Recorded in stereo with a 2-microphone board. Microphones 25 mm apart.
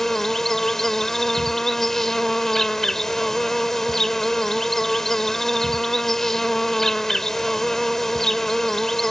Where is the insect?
15° left (ahead or behind).